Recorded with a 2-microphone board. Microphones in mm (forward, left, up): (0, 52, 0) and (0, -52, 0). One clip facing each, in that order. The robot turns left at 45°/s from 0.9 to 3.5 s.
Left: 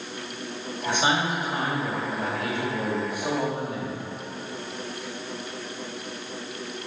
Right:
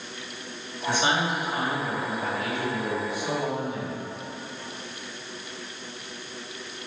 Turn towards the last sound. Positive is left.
turn(degrees=45)